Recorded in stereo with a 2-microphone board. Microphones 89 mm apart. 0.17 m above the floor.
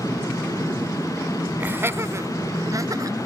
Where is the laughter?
20° right (ahead or behind), 1.1 m; by 3.2 s 40° right (ahead or behind), 1.9 m.